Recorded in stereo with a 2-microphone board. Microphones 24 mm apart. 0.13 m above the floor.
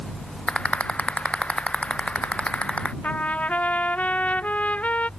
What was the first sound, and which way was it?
A rattle, 60° left (ahead or behind).